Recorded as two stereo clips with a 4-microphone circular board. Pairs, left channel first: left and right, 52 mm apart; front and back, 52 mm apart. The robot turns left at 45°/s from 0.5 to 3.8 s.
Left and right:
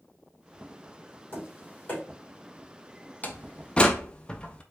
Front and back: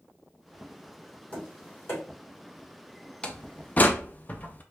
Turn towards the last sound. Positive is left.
turn(degrees=35)